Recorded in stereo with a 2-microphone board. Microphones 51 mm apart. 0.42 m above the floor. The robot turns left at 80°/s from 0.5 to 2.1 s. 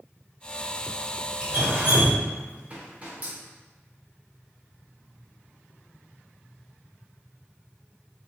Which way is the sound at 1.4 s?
20° right (ahead or behind).